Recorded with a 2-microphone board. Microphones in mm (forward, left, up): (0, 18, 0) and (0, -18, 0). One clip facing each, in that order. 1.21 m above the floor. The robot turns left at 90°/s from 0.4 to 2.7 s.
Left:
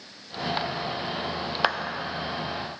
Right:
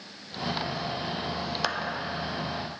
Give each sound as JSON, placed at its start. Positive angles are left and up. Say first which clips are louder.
{"t": 1.6, "sound": "a clap", "louder": "left 6 dB", "side_deg": 30, "distance_m": 0.6}